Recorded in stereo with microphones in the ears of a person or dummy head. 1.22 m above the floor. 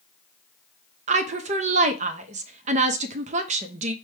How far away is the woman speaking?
About 0.6 m.